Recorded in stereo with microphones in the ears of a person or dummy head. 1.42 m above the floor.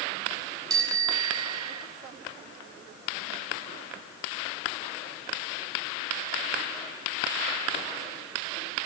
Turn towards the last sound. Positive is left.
turn(degrees=-20)  # may be behind; listen again after turning